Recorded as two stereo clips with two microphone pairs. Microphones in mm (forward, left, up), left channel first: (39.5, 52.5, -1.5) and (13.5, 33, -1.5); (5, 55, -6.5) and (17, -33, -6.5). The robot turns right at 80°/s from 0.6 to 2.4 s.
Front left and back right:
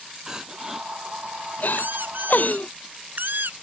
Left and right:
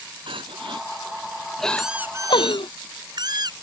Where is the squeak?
175° right; by 3.5 s 120° right.